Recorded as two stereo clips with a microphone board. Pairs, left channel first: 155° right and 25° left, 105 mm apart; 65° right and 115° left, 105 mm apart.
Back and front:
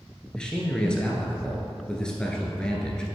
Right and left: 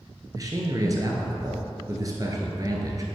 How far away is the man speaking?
About 1.4 m.